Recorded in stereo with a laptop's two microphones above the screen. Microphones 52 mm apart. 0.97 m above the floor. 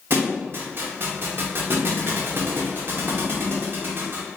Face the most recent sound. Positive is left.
turn(degrees=-50)  # may be behind; listen again after turning